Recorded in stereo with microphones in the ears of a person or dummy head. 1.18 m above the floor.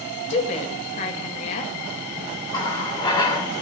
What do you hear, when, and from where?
0.3 s a woman speaking: 35° left (ahead or behind), 1.5 m
2.5 s a running tap: 30° left (ahead or behind), 1.7 m